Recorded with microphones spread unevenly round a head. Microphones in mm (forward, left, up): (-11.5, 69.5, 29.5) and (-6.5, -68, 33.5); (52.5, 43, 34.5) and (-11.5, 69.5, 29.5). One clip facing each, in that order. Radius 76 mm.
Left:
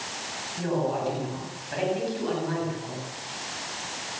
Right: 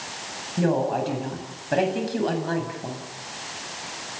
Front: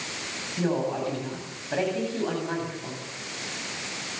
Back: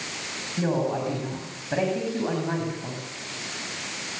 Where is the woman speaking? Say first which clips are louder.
Right 4 dB, back 1 dB; 120° right, 9 m.